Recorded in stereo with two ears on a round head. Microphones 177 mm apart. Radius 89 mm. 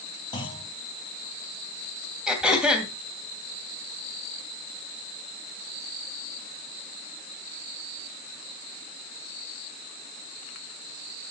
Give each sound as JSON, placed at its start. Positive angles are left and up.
{"t": 0.3, "sound": "a clunk", "side_deg": 25, "distance_m": 3.0}
{"t": 2.3, "sound": "throat clearing", "side_deg": -5, "distance_m": 2.5}